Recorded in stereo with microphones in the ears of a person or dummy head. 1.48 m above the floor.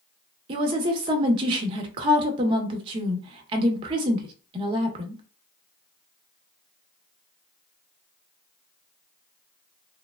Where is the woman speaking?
30° right (ahead or behind), 0.8 m.